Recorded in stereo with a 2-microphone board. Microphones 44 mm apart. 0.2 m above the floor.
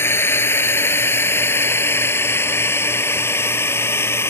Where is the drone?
65° left (ahead or behind); by 4.3 s 70° left (ahead or behind).